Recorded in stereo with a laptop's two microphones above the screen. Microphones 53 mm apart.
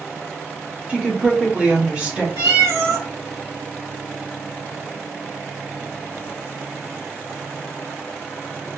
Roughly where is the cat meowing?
Right.